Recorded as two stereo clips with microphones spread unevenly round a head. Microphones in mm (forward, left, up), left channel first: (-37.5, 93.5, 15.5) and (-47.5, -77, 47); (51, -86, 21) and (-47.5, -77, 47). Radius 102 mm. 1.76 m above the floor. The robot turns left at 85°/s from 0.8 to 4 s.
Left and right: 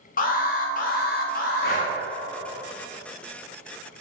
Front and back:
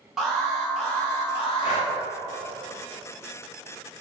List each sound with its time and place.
0.2 s an alarm: 105° left, 0.7 m; by 1.9 s 10° left, 0.7 m
1.6 s breathing: 40° left, 0.7 m; by 1.9 s 15° left, 0.7 m